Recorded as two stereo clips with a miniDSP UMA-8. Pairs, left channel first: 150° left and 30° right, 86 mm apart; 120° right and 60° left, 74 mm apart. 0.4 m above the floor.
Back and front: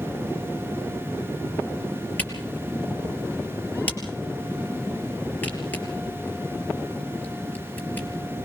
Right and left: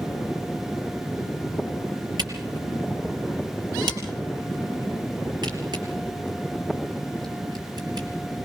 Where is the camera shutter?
80° left, 4.5 m.